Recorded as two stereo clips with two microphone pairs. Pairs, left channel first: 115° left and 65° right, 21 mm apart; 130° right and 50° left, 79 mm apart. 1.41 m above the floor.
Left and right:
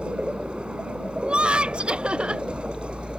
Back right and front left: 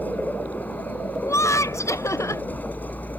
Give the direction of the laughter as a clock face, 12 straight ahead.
3 o'clock.